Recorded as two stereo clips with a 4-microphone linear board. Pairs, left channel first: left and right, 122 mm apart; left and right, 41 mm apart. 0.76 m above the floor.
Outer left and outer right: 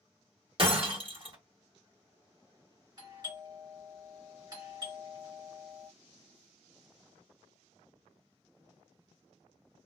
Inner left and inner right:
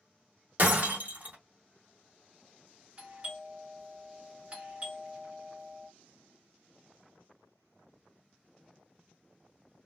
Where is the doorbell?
35° right (ahead or behind), 1.5 m.